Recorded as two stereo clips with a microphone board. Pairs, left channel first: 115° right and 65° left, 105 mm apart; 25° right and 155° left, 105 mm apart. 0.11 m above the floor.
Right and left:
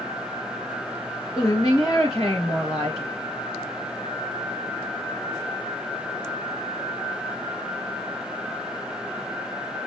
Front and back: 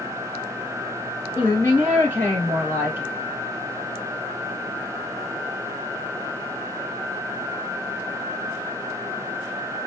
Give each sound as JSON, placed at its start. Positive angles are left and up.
{"t": 1.4, "sound": "a woman speaking", "azimuth_deg": -80, "distance_m": 2.0}